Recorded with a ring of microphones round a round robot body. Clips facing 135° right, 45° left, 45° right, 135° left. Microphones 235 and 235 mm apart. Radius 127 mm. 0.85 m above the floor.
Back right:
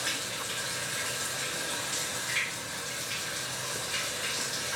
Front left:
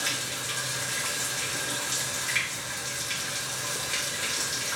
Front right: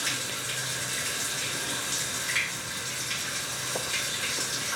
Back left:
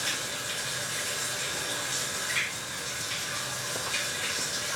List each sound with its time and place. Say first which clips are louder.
0.0 s running water: front left 2 dB, front right 1 dB; 15° left, 1.7 m